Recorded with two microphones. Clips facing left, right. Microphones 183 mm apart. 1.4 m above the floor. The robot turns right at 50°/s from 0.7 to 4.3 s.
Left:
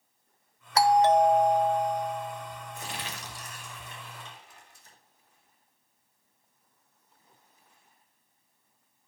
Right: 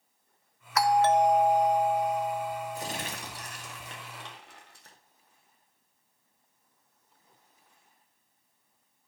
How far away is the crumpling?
About 2 m.